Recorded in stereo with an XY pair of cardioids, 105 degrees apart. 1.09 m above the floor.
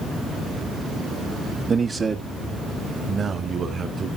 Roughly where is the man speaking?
Ahead right.